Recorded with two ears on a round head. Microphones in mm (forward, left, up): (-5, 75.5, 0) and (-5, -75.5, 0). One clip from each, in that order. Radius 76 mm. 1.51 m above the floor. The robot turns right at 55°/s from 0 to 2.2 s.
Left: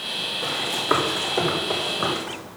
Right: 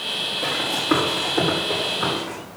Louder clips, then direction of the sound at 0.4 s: Even; 10° left (ahead or behind).